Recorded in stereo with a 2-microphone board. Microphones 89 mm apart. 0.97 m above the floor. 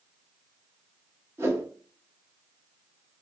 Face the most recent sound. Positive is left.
turn(degrees=-30)  # may be behind; listen again after turning